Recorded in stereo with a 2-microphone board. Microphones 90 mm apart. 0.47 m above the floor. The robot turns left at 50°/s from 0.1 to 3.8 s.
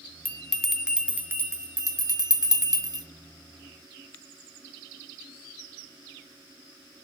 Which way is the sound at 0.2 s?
15° left (ahead or behind).